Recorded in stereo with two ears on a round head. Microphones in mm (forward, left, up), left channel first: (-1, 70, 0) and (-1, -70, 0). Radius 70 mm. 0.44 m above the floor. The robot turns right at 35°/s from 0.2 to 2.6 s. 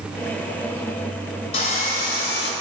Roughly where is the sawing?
Ahead left.